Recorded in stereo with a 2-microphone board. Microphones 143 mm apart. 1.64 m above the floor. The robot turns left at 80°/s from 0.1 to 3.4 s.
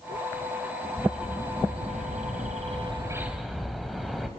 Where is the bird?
15° left, 2.5 m; by 4.3 s straight behind, 2.5 m.